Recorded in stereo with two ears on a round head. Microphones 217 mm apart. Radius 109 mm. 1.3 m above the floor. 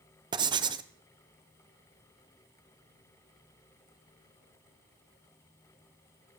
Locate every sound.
0.3 s writing: 20° right (ahead or behind), 0.6 m